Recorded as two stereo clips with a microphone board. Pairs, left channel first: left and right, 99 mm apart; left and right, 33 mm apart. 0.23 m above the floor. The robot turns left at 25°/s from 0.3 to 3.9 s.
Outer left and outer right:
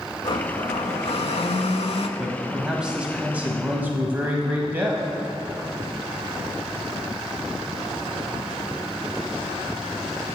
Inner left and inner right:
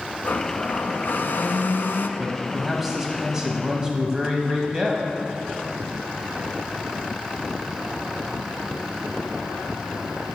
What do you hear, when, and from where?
0.2 s a blender: 125° left, 0.6 m; by 2.1 s 80° left, 0.6 m
2.2 s a man speaking: centre (ahead or behind), 1.1 m; by 5.0 s 20° right (ahead or behind), 1.1 m